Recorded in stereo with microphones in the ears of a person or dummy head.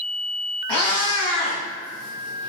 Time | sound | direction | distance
0.7 | a cat meowing | 25° left (ahead or behind) | 1.3 m